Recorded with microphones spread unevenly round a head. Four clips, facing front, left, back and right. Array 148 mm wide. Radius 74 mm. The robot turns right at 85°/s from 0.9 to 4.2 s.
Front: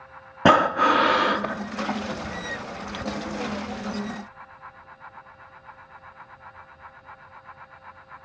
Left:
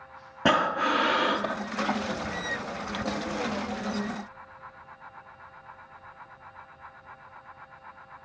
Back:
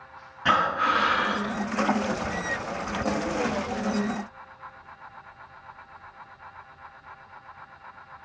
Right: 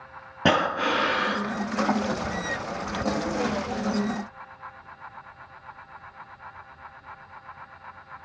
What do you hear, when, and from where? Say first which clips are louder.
0.5 s breathing: right 1 dB, front 6 dB; 15° right, 0.6 m; by 1.6 s 40° left, 0.6 m